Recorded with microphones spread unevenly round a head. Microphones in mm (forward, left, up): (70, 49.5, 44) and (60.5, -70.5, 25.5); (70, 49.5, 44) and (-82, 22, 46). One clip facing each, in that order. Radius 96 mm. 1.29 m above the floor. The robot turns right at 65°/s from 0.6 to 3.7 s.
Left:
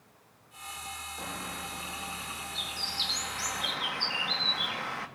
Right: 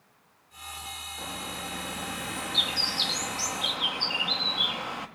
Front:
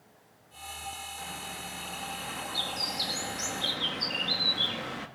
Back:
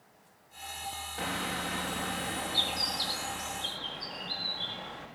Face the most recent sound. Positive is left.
turn(degrees=-25)